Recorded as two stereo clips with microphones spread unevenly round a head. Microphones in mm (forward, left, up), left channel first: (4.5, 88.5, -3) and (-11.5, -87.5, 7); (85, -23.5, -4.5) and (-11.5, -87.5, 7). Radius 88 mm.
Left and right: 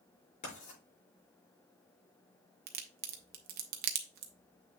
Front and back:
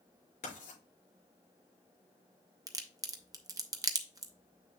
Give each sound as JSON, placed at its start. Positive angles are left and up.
{"t": 0.4, "sound": "writing", "azimuth_deg": 30, "distance_m": 5.5}
{"t": 2.7, "sound": "a crack", "azimuth_deg": -90, "distance_m": 1.2}